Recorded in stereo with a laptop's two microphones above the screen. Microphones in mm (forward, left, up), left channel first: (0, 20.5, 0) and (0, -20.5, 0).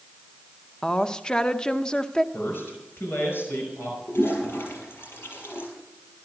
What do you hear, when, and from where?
0.8 s a woman speaking: 20° left (ahead or behind), 0.6 m
2.3 s a man speaking: 65° left (ahead or behind), 5 m
4.1 s a toilet flushing: 60° left (ahead or behind), 7 m